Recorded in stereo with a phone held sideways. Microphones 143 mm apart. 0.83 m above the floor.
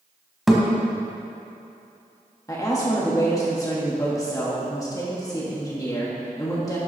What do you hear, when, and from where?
0.5 s a thud: centre (ahead or behind), 1.6 m
2.5 s a woman speaking: 25° left (ahead or behind), 1.4 m